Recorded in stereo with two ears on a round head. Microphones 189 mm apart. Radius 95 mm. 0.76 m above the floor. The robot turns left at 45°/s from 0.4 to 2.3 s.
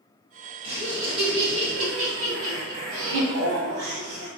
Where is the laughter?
25° right, 1.7 m; by 4.3 s 100° right, 1.7 m.